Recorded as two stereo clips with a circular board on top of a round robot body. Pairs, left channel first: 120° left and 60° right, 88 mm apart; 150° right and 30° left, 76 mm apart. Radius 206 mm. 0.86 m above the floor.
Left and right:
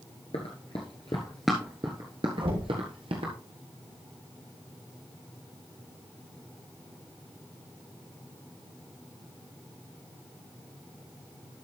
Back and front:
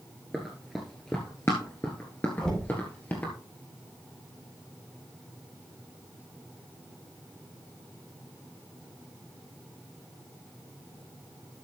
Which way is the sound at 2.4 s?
70° right.